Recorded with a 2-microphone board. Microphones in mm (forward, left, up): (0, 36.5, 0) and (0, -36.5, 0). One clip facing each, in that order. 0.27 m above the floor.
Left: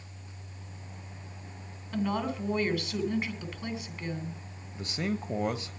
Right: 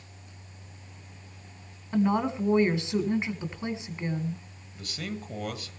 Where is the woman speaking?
25° right (ahead or behind), 3 m.